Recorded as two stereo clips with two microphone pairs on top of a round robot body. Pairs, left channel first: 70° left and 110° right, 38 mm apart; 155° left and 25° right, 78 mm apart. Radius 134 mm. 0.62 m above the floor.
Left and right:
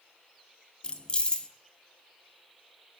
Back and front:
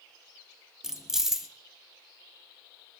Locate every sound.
0.8 s keys jangling: 30° left, 0.6 m